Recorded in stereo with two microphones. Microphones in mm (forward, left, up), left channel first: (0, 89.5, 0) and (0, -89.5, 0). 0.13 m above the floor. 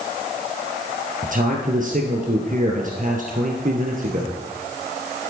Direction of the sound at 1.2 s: 50° right (ahead or behind).